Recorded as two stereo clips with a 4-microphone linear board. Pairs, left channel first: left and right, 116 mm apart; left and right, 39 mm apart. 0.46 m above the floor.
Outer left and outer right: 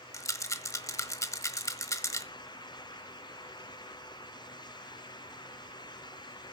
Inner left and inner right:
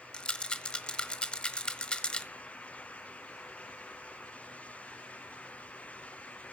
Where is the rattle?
30° left (ahead or behind), 1.2 m.